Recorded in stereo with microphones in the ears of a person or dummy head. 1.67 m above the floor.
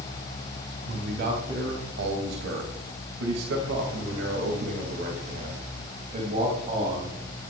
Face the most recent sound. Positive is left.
turn(degrees=-35)  # may be behind; listen again after turning